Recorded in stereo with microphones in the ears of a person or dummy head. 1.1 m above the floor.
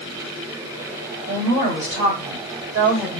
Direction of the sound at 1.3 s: 40° right (ahead or behind).